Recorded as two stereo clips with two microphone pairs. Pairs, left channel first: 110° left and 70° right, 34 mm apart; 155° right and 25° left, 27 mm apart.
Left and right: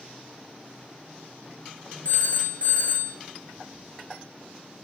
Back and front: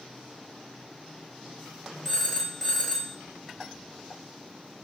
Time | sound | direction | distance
2.0 | a phone ringing | 110° left | 1.4 m